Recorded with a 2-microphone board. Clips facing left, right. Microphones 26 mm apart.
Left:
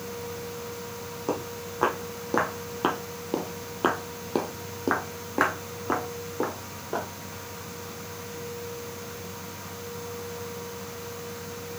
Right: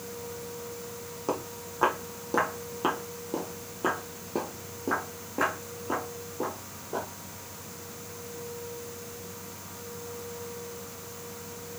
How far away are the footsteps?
About 1.8 m.